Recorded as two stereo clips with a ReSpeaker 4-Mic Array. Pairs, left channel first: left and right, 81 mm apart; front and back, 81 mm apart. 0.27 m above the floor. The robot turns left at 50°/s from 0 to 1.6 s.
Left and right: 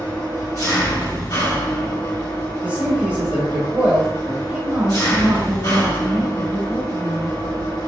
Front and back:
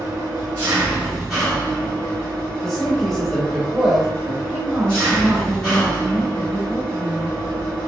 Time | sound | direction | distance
0.0 | an engine running | 160° left | 2.0 m
2.6 | a man speaking | 75° right | 0.9 m
4.5 | a woman speaking | 95° right | 0.9 m